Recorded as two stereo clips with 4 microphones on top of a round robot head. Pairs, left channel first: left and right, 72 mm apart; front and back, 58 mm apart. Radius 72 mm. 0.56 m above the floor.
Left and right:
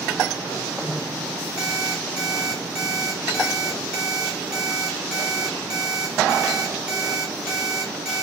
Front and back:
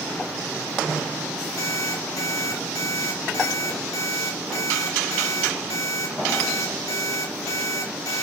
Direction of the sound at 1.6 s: 10° right.